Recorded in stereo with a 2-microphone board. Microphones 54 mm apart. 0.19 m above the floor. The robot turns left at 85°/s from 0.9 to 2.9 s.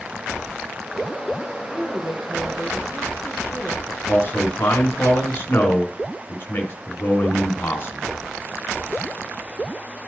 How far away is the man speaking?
About 2 m.